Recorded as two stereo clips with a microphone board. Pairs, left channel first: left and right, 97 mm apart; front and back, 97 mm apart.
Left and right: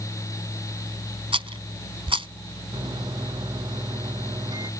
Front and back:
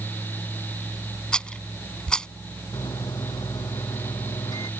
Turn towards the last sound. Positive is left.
turn(degrees=-45)